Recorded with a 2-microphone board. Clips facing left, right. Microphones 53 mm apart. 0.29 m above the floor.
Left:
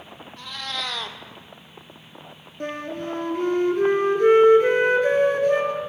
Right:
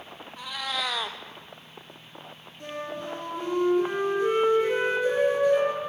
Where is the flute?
60° left (ahead or behind), 4 m.